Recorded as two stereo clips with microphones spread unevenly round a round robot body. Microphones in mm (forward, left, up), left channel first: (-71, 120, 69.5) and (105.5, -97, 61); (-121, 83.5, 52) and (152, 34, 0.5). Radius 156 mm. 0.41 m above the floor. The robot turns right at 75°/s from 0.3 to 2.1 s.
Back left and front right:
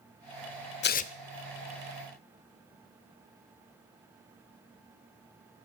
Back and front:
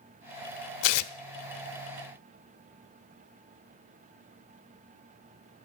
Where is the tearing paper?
175° left, 0.8 m; by 1.1 s 160° right, 0.8 m.